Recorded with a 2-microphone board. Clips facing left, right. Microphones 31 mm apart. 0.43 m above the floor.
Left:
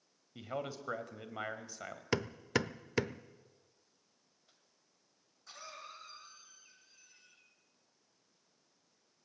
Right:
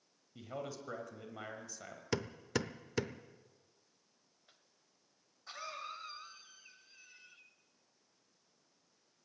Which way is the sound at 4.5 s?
30° right (ahead or behind).